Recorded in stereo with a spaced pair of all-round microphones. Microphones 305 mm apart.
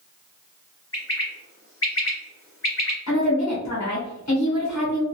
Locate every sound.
0.9 s a bird: 45° left (ahead or behind), 1.1 m
3.1 s a woman speaking: 60° left (ahead or behind), 0.9 m